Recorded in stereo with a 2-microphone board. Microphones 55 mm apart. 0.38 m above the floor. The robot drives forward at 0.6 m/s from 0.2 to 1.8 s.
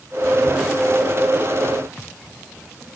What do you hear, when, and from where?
Only background noise.